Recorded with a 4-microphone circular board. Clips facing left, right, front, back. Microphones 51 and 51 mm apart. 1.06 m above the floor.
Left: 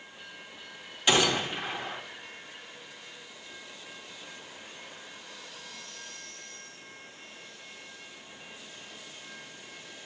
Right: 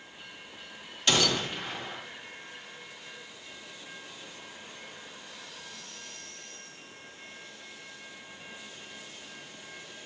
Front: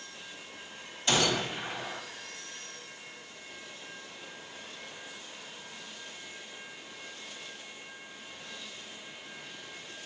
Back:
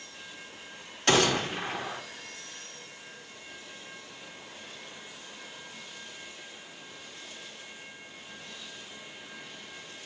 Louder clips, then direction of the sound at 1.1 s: Left 2 dB, back 4 dB; 165° left.